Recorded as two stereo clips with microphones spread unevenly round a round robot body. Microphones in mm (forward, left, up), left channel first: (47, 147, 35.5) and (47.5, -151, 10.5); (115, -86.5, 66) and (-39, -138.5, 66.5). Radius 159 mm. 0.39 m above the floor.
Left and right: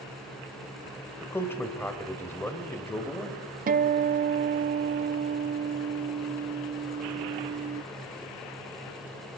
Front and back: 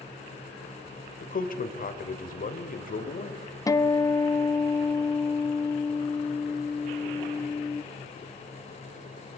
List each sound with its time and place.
1.2 s a man speaking: 5° left, 1.8 m
3.7 s a guitar: 45° right, 0.6 m